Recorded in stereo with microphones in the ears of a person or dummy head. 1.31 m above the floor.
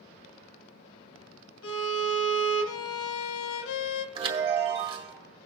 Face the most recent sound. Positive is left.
turn(degrees=-35)  # may be behind; listen again after turning